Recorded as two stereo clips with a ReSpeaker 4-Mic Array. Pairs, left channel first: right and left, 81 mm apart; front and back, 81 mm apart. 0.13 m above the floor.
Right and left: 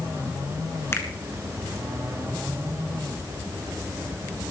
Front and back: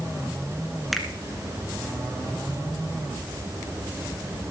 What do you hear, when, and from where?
0.9 s a finger snap: 90° right, 1.7 m